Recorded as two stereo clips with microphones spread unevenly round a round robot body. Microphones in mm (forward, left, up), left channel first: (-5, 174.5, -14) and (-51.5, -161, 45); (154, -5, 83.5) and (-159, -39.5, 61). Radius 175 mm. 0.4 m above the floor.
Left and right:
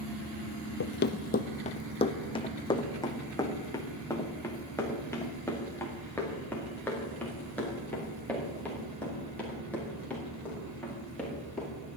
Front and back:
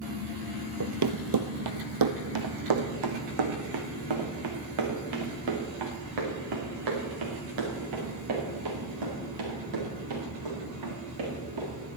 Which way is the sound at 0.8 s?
140° left.